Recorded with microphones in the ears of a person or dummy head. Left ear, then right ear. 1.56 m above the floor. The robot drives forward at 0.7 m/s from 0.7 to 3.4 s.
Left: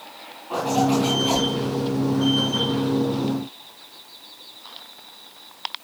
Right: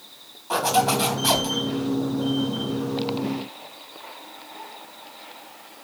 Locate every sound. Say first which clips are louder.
0.5 s a zipper: right 1 dB; 60° right (ahead or behind), 3 m; by 1.5 s 65° right (ahead or behind), 3 m